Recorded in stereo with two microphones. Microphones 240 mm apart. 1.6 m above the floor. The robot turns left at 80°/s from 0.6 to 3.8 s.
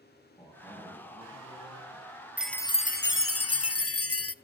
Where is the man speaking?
15° left, 9.5 m; by 2.1 s 105° right, 9.5 m.